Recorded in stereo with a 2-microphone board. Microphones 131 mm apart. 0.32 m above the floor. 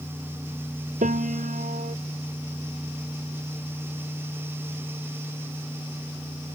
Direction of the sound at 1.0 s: 80° right.